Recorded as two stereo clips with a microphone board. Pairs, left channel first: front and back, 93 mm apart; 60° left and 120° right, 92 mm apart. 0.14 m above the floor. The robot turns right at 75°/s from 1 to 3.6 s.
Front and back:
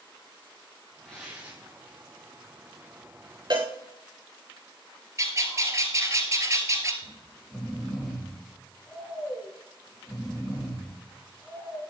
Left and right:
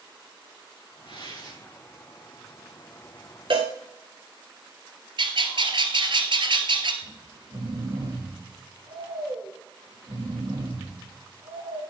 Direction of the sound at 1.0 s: 80° left.